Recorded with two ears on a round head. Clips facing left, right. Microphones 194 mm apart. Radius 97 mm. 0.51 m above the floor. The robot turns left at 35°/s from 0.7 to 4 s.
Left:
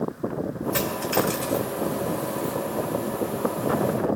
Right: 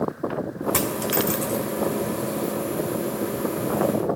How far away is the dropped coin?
About 1.9 m.